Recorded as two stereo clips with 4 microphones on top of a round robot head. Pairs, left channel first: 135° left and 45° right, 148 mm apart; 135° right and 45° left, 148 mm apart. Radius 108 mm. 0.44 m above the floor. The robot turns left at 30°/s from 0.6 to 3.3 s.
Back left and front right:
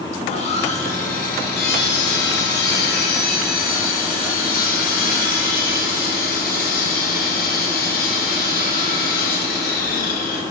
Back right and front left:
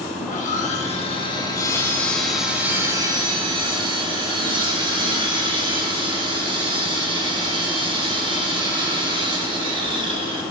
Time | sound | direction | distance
0.2 | sawing | 175° right | 1.7 m